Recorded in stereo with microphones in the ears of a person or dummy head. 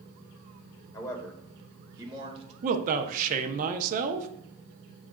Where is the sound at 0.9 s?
25° left (ahead or behind), 1.0 m; by 2.5 s 35° right (ahead or behind), 1.2 m.